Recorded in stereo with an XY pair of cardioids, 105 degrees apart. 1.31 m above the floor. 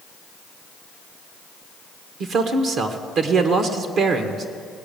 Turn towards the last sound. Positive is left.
turn(degrees=-65)